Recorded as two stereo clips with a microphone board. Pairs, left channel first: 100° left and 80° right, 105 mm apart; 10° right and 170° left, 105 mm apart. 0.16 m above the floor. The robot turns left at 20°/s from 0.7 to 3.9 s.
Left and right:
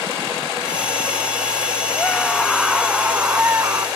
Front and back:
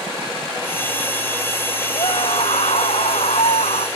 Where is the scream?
25° left; by 3.9 s 15° right.